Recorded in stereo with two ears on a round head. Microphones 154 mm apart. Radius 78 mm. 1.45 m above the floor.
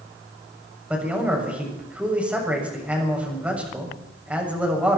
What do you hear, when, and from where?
0.9 s a man speaking: 10° right (ahead or behind), 7 m